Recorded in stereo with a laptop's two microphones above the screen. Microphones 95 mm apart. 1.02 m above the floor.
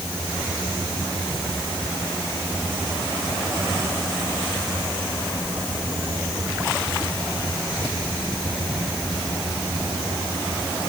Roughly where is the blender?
I don't hear a blender.